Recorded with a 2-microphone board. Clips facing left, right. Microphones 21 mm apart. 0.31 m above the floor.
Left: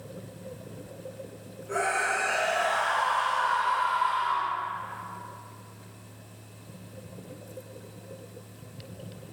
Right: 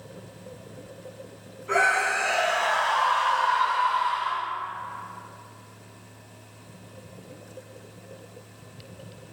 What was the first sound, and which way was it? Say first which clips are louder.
A scream: right 5 dB; 65° right (ahead or behind).